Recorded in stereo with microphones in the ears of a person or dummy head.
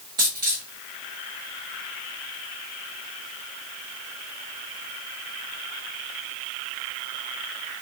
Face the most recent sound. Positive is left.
turn(degrees=-20)  # may be behind; listen again after turning